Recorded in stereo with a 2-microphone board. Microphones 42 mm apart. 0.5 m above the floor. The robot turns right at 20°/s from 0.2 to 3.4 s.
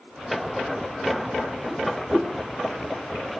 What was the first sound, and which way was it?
A whoosh, 20° right (ahead or behind).